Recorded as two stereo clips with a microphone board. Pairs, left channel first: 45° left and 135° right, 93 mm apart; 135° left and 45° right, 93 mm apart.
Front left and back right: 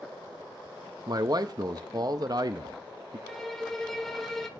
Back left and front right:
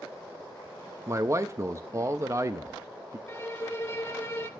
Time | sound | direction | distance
1.1 | a man speaking | 95° right | 0.6 m
3.3 | a violin | 125° left | 0.8 m